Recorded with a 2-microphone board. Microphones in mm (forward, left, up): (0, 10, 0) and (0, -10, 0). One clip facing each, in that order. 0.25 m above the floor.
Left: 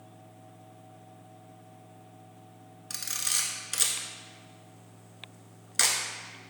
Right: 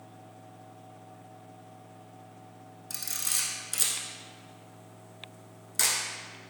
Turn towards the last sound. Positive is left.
turn(degrees=30)  # may be behind; listen again after turning